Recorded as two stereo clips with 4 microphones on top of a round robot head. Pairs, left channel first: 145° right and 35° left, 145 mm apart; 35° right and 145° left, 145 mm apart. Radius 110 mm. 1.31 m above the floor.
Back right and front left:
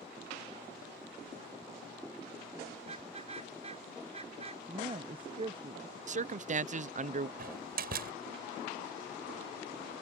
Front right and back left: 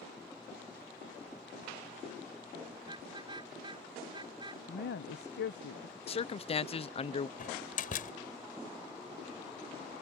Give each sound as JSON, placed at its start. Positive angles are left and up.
{"t": 2.8, "sound": "a car horn", "azimuth_deg": 85}
{"t": 4.7, "sound": "a woman speaking", "azimuth_deg": -25}
{"t": 6.1, "sound": "a man speaking", "azimuth_deg": 10}
{"t": 7.4, "sound": "a door slam", "azimuth_deg": 5}